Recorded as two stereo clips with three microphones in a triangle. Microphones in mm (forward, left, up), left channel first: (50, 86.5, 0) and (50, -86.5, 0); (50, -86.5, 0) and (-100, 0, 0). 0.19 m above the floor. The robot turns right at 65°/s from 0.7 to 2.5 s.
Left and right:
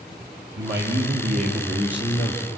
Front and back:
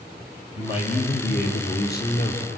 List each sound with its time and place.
0.6 s a man speaking: 90° right, 4 m; by 2.4 s 25° left, 4 m